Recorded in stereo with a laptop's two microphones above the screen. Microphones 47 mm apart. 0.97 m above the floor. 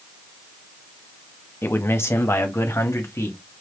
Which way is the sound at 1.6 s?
50° left (ahead or behind).